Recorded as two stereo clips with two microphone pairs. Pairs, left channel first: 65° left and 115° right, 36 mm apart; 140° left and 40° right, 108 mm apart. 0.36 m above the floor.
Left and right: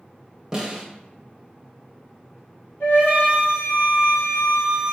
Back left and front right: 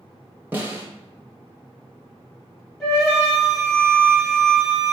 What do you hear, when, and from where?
0.5 s a snare drum: 65° right, 0.8 m
2.8 s a flute: 55° left, 1.8 m